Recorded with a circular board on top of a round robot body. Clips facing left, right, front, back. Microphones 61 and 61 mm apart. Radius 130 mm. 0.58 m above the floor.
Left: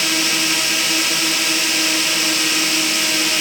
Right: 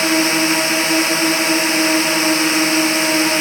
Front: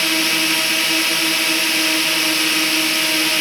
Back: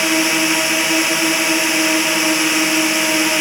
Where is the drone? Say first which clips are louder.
Right 5 dB, back 3 dB; 120° right.